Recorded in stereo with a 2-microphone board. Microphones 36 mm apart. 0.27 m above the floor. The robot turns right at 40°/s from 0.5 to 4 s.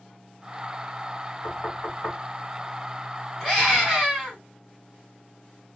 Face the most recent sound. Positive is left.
turn(degrees=-20)  # may be behind; listen again after turning